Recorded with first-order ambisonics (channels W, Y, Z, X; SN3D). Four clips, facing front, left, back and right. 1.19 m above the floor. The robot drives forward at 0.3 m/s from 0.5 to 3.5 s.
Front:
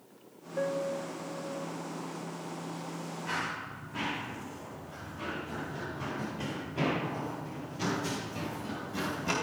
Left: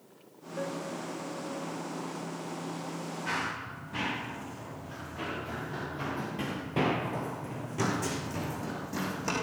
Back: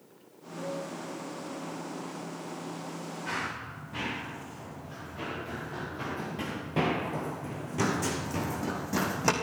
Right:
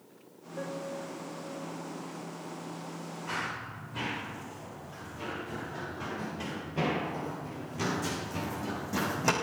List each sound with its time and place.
0.6 s a piano: 10° left, 1.3 m
3.3 s running footsteps: 115° left, 9 m; by 9.3 s 155° right, 2.5 m